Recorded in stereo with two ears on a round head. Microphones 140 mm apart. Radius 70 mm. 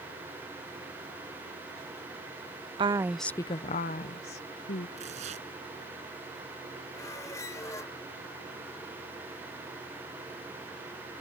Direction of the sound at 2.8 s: 30° right (ahead or behind).